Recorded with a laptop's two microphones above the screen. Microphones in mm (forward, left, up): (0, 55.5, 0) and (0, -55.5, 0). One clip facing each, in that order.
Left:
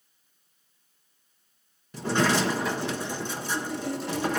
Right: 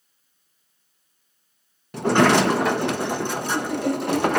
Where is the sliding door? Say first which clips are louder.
Right 8 dB; 65° right (ahead or behind), 0.5 m.